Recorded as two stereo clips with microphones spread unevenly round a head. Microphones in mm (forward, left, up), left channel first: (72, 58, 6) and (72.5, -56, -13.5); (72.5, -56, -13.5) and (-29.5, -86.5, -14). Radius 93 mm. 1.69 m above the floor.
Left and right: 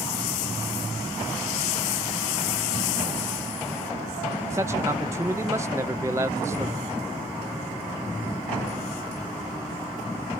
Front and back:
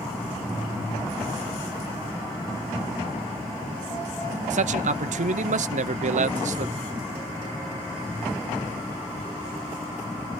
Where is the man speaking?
165° right, 0.8 m.